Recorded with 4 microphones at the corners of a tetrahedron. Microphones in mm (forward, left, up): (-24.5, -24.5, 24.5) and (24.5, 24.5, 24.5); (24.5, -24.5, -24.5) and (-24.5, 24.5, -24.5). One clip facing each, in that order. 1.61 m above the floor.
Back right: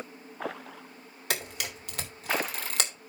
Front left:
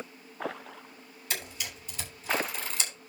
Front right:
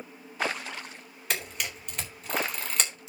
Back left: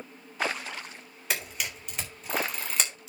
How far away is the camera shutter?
About 3.5 m.